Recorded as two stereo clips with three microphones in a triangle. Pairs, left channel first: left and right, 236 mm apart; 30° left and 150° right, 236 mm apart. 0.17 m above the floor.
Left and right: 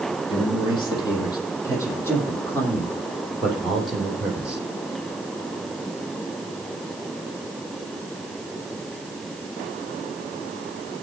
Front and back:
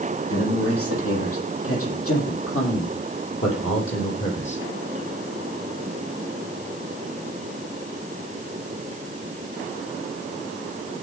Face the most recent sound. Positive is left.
turn(degrees=-5)